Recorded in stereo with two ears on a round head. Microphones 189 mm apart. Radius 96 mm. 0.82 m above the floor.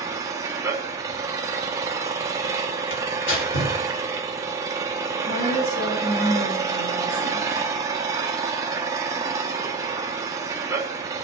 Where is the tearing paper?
65° left (ahead or behind), 3 m.